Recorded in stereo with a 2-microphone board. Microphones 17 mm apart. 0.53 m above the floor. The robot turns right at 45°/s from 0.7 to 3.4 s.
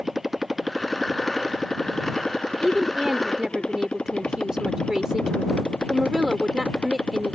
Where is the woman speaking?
165° right; by 7.4 s 130° right.